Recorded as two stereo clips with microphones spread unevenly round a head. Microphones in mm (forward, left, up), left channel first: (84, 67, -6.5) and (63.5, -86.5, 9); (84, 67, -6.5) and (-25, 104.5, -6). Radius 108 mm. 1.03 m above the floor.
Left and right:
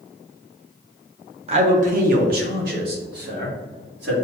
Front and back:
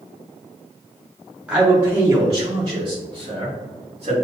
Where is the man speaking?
120° right, 0.5 m; by 4.2 s 135° right, 1.8 m.